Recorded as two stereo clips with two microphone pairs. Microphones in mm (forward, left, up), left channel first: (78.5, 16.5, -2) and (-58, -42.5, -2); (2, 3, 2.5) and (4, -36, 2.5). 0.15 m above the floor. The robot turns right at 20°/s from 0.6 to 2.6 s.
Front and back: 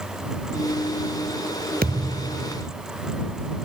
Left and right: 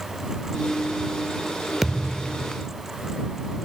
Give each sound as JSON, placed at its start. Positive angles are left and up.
{"t": 1.8, "sound": "a thud", "azimuth_deg": -165}